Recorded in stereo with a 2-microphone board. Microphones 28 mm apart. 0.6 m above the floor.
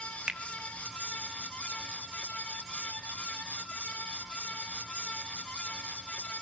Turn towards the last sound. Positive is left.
turn(degrees=-40)  # may be behind; listen again after turning